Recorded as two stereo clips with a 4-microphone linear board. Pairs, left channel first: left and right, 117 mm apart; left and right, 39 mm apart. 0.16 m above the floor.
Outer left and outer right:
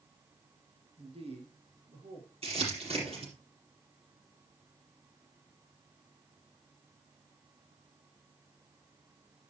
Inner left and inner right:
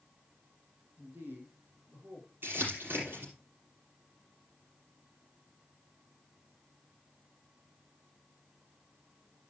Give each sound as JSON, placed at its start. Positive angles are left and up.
{"t": 1.0, "sound": "a man speaking", "side_deg": -50, "distance_m": 2.0}
{"t": 2.4, "sound": "crumpling", "side_deg": -55, "distance_m": 5.0}